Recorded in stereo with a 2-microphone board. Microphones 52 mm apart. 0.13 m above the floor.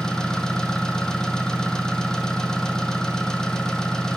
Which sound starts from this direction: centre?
An engine running, at 0.0 s.